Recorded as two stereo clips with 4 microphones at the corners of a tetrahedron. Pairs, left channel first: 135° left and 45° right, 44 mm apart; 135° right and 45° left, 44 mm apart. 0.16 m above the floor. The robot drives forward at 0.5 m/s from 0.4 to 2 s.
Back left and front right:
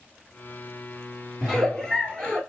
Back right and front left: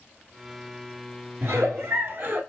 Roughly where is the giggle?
Ahead left.